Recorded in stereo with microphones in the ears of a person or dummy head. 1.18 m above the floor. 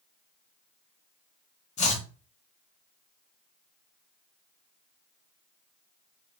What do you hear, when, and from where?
1.8 s chopping: 35° left (ahead or behind), 0.5 m